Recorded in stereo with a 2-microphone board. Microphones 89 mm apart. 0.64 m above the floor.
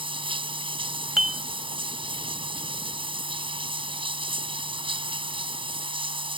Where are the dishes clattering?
5° right (ahead or behind).